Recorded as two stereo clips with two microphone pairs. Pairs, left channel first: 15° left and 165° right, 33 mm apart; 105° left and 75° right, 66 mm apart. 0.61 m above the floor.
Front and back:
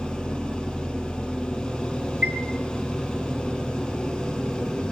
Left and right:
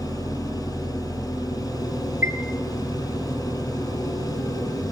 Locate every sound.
0.0 s an engine running: 85° left, 8.5 m
2.2 s a chime: 140° right, 6 m